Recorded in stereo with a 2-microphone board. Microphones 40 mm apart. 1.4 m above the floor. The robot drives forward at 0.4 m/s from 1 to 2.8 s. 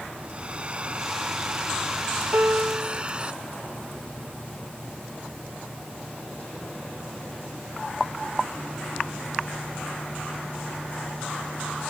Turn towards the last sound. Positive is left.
turn(degrees=-65)  # may be behind; listen again after turning